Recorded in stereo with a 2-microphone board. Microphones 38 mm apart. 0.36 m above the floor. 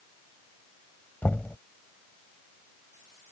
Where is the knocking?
55° left (ahead or behind).